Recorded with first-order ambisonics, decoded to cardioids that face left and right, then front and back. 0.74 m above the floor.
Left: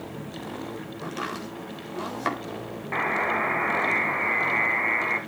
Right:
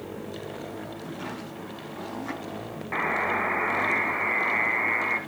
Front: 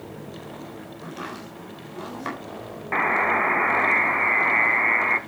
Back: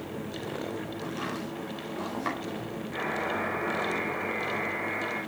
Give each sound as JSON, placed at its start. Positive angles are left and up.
{"t": 1.0, "sound": "chopping", "azimuth_deg": 85, "distance_m": 4.0}
{"t": 2.9, "sound": "a buzzer", "azimuth_deg": 0, "distance_m": 1.2}